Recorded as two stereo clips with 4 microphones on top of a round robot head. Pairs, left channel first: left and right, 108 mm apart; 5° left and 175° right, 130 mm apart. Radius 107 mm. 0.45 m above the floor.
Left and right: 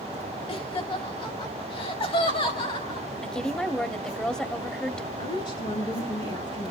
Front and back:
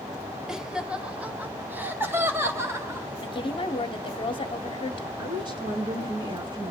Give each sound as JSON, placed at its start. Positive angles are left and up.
{"t": 0.5, "sound": "laughter", "azimuth_deg": 100, "distance_m": 2.5}
{"t": 3.2, "sound": "a woman speaking", "azimuth_deg": 10, "distance_m": 1.1}
{"t": 5.2, "sound": "a woman speaking", "azimuth_deg": 130, "distance_m": 7.5}